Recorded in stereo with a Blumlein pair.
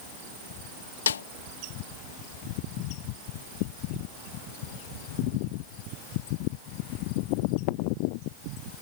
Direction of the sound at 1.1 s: 70° left.